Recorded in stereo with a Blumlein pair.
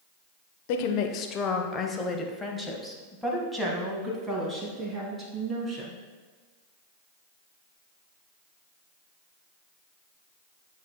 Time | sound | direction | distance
0.7 | a woman speaking | 50° left | 0.9 m